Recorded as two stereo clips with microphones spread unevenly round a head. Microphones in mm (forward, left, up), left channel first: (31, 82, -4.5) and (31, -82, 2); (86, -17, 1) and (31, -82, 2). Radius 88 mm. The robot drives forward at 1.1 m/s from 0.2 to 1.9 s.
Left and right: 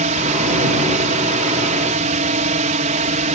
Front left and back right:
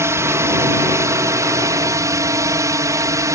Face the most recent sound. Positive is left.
turn(degrees=-105)